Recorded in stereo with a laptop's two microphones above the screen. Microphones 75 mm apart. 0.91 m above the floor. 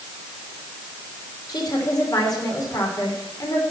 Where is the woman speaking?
60° left (ahead or behind), 3 m.